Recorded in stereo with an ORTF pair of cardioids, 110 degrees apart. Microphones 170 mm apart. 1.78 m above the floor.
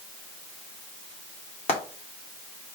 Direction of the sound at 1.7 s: 40° left.